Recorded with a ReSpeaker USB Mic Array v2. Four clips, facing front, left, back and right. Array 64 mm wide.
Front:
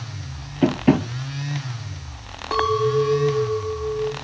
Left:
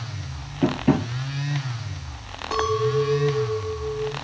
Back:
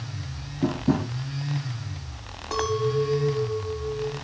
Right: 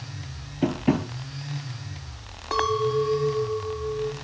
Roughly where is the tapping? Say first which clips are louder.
Left 3 dB, front 6 dB; ahead.